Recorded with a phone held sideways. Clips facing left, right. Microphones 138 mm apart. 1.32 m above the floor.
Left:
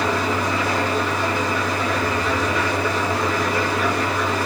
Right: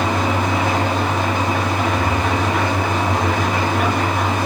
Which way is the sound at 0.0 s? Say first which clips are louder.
Right 2 dB; 80° right.